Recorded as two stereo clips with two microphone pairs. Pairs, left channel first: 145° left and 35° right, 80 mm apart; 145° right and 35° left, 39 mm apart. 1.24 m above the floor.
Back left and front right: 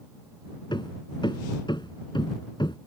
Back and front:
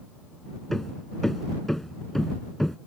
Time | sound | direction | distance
0.7 | hammering | 130° left | ?